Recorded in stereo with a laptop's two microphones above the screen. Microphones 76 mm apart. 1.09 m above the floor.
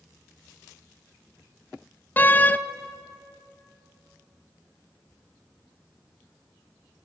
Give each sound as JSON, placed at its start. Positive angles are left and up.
{"t": 2.2, "sound": "a door slam", "side_deg": 25, "distance_m": 0.6}